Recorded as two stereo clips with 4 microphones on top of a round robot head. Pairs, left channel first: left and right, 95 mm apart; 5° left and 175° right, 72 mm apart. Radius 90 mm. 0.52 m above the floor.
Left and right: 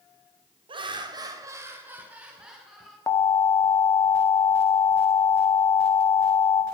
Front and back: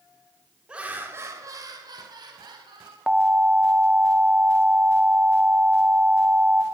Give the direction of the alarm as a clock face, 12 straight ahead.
8 o'clock.